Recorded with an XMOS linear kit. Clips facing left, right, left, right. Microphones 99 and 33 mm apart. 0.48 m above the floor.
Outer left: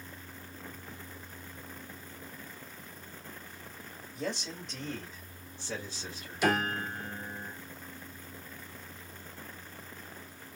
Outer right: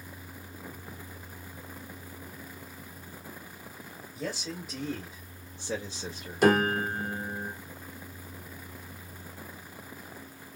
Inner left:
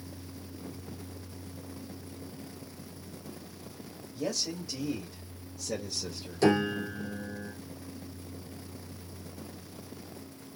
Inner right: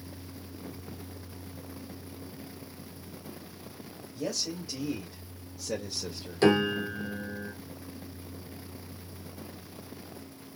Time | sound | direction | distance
4.2 | a man speaking | centre (ahead or behind) | 2.0 m
6.4 | a piano | 50° right (ahead or behind) | 1.7 m